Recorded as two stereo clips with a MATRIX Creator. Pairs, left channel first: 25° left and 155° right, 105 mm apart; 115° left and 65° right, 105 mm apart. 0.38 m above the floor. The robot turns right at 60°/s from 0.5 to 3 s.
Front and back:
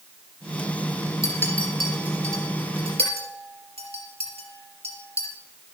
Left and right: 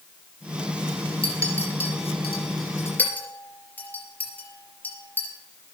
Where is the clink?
80° left, 4 m; by 5.3 s 175° right, 4 m.